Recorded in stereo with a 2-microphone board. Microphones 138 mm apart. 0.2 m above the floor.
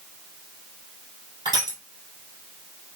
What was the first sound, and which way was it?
Crushing, 30° right (ahead or behind).